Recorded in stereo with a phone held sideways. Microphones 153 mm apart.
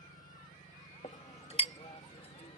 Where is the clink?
45° left (ahead or behind).